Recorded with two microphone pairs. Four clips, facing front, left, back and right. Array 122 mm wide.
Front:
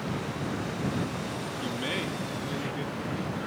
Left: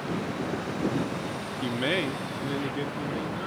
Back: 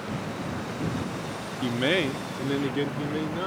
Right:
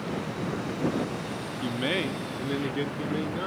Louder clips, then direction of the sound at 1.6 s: Left 1 dB, back 10 dB; 150° left.